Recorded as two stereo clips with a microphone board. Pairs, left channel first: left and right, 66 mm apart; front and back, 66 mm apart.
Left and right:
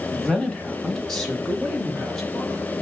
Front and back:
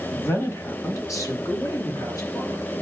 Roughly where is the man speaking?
Ahead.